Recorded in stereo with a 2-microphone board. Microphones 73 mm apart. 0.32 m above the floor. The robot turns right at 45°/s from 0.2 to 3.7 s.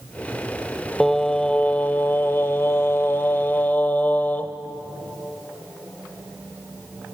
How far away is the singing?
About 0.9 m.